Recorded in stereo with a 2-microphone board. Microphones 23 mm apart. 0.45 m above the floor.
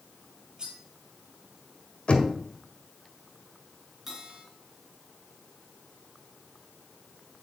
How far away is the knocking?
About 1.8 m.